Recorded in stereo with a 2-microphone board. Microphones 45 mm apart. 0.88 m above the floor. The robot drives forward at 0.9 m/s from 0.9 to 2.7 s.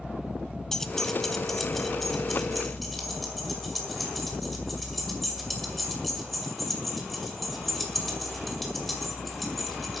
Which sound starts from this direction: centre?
Keys jangling, at 0.7 s.